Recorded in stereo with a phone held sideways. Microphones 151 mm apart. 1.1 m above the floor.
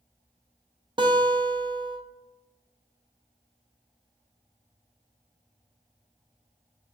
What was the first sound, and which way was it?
A guitar, 30° right (ahead or behind).